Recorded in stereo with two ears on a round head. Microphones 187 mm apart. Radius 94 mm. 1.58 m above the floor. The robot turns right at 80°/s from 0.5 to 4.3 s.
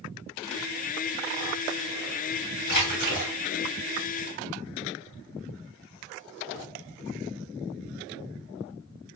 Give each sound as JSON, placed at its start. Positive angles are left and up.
{"t": 2.7, "sound": "a splash", "azimuth_deg": 85, "distance_m": 2.0}